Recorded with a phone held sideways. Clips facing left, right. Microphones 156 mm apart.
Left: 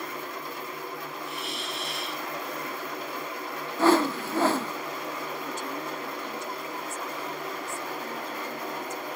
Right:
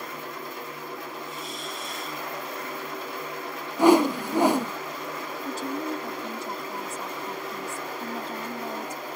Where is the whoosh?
15° right (ahead or behind).